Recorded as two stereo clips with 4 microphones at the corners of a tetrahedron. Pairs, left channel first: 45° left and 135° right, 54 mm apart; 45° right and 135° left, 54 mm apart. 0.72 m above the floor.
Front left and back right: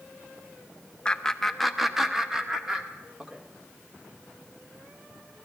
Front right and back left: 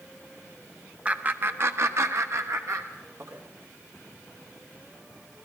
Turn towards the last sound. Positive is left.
turn(degrees=150)